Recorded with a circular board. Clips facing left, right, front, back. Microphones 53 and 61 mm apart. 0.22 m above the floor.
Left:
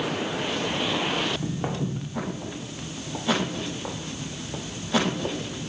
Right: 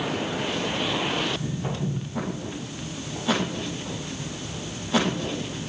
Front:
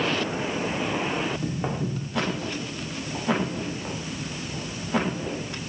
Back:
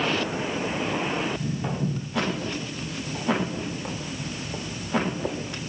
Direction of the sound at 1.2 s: 50° left.